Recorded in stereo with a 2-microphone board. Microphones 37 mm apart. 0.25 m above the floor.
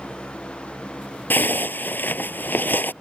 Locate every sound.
1.3 s a zipper: 65° left (ahead or behind)